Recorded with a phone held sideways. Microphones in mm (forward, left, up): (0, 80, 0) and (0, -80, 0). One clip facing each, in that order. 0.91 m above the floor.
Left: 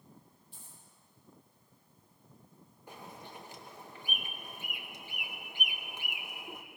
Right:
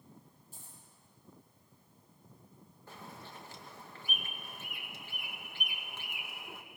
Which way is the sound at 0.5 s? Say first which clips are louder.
Right 1 dB; 45° right (ahead or behind).